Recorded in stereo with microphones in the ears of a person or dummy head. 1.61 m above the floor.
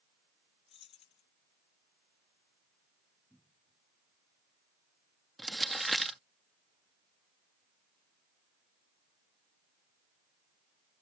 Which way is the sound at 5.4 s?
Centre (ahead or behind).